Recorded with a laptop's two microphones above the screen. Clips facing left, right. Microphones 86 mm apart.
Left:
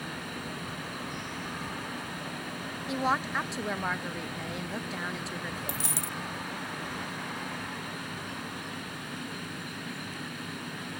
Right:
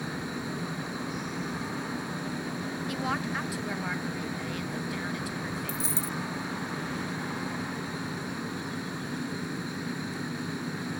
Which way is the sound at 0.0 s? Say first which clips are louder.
Right 4 dB; 20° right (ahead or behind).